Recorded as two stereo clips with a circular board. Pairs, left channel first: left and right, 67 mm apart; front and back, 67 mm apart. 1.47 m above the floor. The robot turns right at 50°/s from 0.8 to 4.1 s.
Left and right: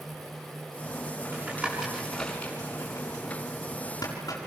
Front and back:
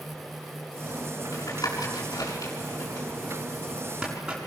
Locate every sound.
1.3 s tapping: 35° right, 7.5 m; by 4.4 s 105° left, 7.5 m